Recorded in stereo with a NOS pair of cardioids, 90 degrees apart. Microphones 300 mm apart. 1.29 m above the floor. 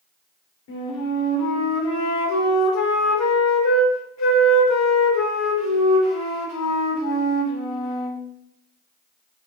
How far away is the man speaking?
I don't hear a man speaking.